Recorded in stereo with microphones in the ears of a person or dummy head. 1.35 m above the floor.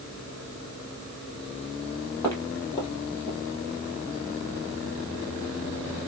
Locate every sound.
2.2 s footsteps: 15° left (ahead or behind), 2.5 m; by 3.4 s 30° left (ahead or behind), 1.9 m